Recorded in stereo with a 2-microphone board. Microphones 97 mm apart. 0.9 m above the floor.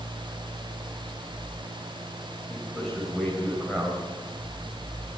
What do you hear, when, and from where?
2.5 s a man speaking: centre (ahead or behind), 4 m